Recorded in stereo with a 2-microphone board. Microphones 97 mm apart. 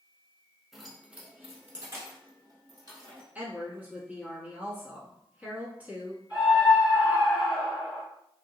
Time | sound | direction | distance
0.7 | keys jangling | centre (ahead or behind) | 0.9 m
3.4 | a woman speaking | 15° right (ahead or behind) | 1.1 m
6.3 | a scream | 10° right (ahead or behind) | 1.9 m